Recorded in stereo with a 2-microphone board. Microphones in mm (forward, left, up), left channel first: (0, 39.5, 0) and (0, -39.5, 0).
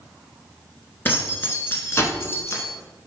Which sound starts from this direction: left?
Keys jangling, at 1.1 s.